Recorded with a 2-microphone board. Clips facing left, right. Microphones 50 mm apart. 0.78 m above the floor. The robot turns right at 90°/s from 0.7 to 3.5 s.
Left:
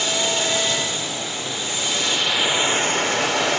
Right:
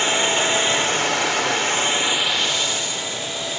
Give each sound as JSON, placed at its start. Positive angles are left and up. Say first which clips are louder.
{"t": 0.0, "sound": "running water", "louder": "right 3 dB", "azimuth_deg": -145, "distance_m": 2.0}